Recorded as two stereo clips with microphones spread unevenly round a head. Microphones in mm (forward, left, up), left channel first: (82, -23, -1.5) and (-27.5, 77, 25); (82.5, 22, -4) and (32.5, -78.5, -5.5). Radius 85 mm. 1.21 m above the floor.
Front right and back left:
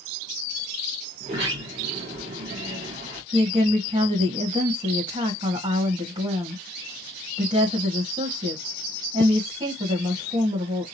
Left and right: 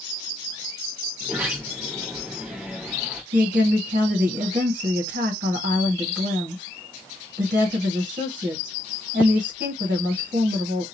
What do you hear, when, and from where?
1.2 s a sliding door: 170° left, 1.6 m
3.3 s a woman speaking: 155° right, 1.8 m